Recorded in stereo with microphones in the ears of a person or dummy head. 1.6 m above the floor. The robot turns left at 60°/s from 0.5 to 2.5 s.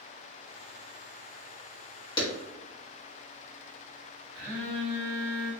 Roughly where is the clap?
Left.